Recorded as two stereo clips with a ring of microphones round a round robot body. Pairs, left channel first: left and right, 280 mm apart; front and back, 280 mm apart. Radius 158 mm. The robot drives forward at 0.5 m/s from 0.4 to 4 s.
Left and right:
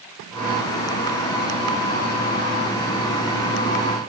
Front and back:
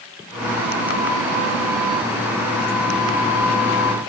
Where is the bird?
I don't hear a bird.